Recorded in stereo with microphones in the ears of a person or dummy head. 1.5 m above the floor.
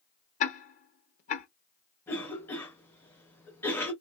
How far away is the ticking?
About 0.7 m.